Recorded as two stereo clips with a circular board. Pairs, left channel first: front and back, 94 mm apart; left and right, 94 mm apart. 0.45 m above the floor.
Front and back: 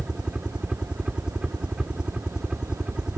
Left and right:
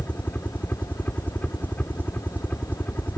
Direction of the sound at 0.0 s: 115° left.